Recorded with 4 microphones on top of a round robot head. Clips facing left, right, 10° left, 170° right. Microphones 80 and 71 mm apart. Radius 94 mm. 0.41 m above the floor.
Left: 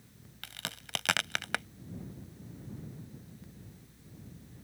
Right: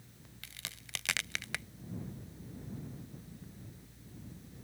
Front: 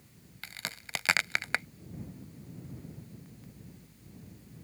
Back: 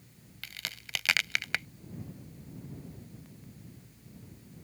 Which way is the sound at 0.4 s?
65° left.